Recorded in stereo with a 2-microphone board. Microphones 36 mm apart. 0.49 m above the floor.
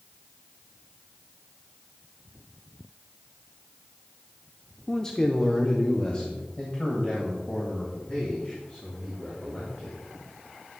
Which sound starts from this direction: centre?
A man speaking, at 4.9 s.